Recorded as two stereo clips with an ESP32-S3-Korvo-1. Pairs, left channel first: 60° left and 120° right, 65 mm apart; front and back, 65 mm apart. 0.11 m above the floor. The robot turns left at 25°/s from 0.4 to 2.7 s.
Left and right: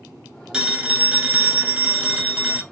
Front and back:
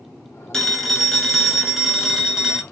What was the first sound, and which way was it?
A phone ringing, 70° right.